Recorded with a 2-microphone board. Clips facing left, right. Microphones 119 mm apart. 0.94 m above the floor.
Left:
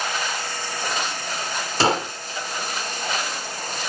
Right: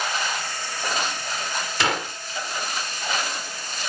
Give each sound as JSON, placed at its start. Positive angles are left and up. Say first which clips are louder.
{"t": 1.8, "sound": "a gunshot", "louder": "left 5 dB", "side_deg": 35, "distance_m": 1.1}